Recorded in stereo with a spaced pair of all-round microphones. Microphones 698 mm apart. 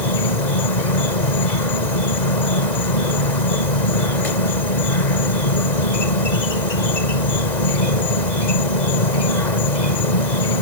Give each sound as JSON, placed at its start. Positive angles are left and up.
{"t": 0.0, "sound": "an insect", "side_deg": 75}